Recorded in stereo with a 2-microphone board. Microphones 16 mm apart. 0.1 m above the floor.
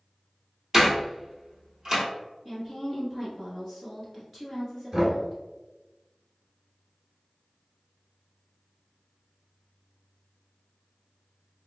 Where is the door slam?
25° right (ahead or behind), 1.5 m.